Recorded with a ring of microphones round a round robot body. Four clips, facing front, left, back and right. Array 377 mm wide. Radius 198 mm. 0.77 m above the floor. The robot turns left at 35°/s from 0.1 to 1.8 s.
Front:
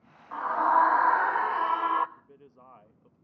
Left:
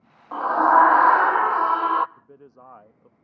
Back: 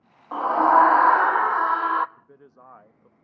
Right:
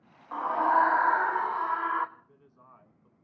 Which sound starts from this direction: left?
A man speaking, at 2.2 s.